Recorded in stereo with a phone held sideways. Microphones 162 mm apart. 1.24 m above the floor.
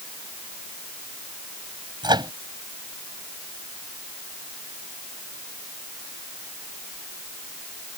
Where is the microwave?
25° right (ahead or behind).